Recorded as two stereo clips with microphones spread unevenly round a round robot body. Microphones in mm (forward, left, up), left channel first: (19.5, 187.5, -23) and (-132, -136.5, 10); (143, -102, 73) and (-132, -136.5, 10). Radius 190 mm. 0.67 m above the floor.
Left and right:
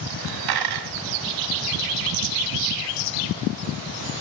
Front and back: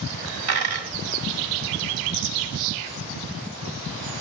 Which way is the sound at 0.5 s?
140° right.